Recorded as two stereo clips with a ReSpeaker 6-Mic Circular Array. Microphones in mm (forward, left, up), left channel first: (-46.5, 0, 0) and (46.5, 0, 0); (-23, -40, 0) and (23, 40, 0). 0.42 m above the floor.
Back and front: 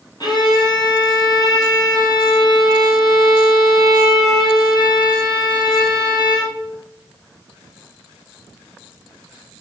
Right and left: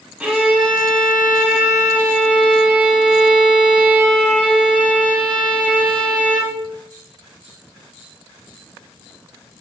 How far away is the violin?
About 2.5 m.